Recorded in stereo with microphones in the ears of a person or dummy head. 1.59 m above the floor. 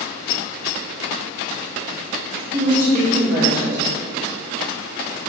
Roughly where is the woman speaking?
Right.